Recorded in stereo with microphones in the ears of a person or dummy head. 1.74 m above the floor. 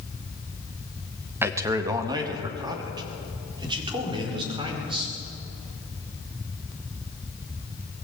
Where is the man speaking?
15° right (ahead or behind), 1.4 m; by 5.1 s 25° right (ahead or behind), 5.5 m.